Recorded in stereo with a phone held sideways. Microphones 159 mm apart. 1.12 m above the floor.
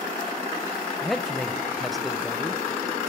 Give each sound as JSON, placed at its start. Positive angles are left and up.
{"t": 1.0, "sound": "a man speaking", "side_deg": 0, "distance_m": 0.5}